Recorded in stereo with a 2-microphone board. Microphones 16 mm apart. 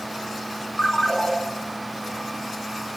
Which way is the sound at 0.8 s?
60° left (ahead or behind).